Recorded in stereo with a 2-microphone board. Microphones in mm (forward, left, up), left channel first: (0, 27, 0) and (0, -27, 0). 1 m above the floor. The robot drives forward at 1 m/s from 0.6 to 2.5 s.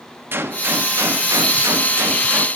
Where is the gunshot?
50° right (ahead or behind), 1.3 m; by 2.5 s 40° right (ahead or behind), 1.5 m.